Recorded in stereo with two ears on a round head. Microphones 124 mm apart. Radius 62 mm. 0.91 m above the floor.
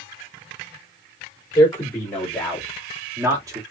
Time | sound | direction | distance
1.6 | a man speaking | 30° left (ahead or behind) | 3 m